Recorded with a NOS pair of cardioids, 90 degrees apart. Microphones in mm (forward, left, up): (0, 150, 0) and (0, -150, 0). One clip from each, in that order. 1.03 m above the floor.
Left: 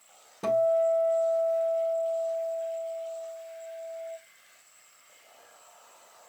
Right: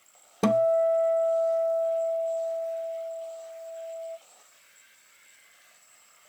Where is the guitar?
55° right, 0.6 m.